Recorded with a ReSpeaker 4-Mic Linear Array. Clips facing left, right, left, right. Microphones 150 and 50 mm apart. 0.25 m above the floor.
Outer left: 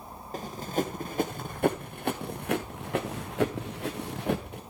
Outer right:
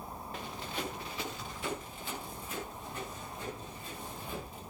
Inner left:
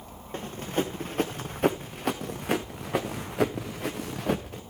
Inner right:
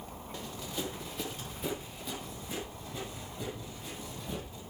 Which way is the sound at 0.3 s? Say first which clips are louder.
Outer left 11 dB, inner left 10 dB; 40° left (ahead or behind).